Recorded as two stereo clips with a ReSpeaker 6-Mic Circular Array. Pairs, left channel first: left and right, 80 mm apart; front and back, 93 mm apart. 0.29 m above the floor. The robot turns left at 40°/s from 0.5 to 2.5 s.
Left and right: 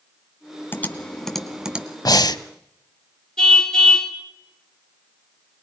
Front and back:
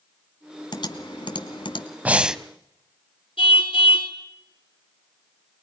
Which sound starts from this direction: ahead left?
Typing on a keyboard, at 0.7 s.